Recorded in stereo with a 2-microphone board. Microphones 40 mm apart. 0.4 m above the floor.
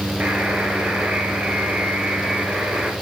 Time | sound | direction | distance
0.2 | a buzzer | 30° right (ahead or behind) | 3 m